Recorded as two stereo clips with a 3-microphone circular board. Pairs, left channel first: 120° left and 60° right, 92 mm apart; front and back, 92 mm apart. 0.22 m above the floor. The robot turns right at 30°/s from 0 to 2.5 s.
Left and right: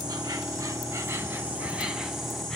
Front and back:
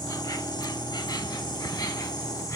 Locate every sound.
0.0 s an insect: 40° right, 0.9 m; by 2.6 s 35° left, 0.9 m